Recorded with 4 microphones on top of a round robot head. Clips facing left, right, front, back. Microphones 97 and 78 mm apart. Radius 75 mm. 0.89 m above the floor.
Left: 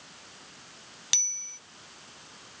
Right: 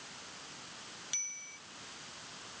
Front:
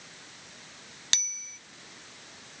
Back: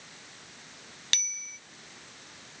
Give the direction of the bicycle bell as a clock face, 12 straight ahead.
10 o'clock.